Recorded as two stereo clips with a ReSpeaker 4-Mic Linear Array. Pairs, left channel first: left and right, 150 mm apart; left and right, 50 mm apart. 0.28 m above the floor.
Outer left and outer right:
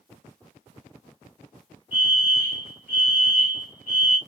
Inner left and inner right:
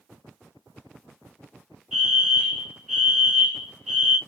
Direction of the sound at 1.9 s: 10° right (ahead or behind).